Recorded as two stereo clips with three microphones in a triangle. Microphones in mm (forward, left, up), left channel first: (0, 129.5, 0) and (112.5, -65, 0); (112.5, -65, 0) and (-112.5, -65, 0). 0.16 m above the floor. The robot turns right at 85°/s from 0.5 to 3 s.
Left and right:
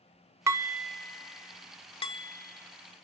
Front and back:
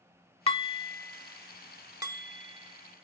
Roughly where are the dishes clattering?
Ahead.